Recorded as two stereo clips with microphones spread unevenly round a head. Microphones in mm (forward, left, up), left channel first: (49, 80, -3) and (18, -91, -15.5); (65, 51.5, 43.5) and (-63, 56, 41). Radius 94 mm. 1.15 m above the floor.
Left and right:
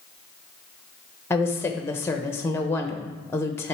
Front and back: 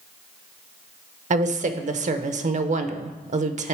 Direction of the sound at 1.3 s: 160° left.